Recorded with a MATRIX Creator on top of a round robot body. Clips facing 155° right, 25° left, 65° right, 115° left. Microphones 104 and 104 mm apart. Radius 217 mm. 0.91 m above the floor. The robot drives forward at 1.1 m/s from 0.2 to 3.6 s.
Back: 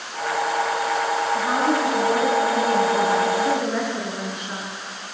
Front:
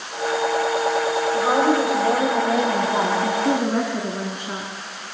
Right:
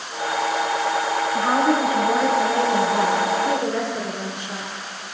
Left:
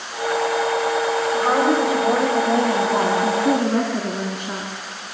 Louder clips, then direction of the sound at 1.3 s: Front 5 dB, left 1 dB; 45° left.